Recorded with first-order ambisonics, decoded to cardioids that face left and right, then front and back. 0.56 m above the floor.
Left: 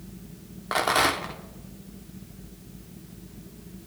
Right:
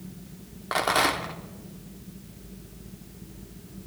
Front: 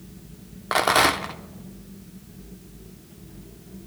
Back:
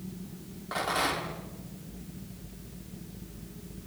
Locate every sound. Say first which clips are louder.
0.7 s a rattle: left 1 dB, front 10 dB; 5° left, 1.0 m